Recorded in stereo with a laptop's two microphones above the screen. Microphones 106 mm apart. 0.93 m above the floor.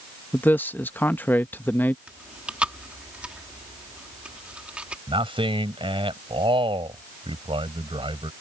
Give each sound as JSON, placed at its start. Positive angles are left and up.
{"t": 0.3, "sound": "a man speaking", "side_deg": 15}
{"t": 2.1, "sound": "chewing", "side_deg": -10}
{"t": 5.1, "sound": "a man speaking", "side_deg": -50}